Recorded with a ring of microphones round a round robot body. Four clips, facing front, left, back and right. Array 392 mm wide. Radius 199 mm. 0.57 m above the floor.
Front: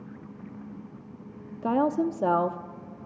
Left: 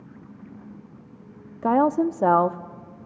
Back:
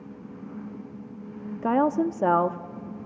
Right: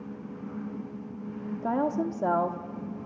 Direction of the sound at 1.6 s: 105° left.